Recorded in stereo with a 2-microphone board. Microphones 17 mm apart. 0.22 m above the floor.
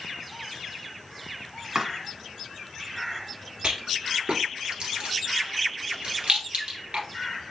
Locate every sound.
1.8 s chopping: 35° right (ahead or behind), 1.3 m
3.6 s a rattle: 70° right (ahead or behind), 2.0 m